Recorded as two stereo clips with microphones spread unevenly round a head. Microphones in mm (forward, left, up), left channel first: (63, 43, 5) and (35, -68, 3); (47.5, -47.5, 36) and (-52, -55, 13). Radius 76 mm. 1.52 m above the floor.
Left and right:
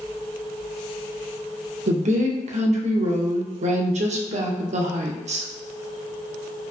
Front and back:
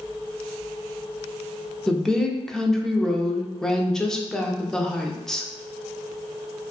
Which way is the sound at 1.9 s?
85° right.